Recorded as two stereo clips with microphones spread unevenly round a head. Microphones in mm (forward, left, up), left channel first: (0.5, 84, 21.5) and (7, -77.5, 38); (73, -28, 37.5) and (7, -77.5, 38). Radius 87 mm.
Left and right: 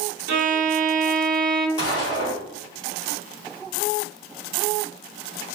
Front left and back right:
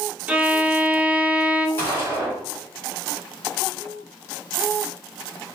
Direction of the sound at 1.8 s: 50° left.